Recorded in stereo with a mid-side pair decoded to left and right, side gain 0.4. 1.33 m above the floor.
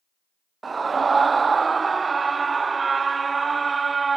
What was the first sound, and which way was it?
A scream, 40° right.